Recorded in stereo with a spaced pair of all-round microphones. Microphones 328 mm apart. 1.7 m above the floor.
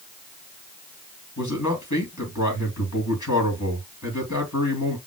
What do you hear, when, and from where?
1.4 s a man speaking: 60° left (ahead or behind), 2.5 m